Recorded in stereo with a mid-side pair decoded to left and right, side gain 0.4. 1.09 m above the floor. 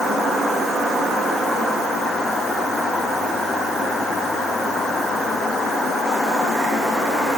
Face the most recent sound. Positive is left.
No sound to turn to.